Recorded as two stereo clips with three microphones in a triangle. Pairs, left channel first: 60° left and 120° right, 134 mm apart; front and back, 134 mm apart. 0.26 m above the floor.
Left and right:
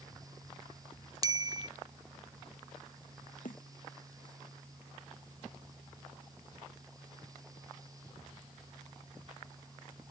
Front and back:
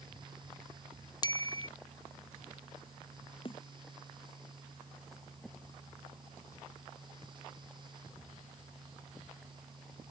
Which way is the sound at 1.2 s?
60° right.